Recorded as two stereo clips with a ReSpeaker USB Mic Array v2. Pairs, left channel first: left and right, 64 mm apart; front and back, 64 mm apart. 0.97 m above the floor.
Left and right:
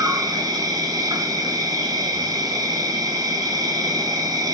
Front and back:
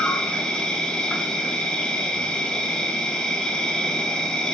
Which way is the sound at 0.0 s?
75° right.